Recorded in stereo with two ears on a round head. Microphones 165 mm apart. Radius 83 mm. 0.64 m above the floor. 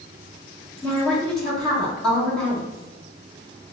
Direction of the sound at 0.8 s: 5° left (ahead or behind).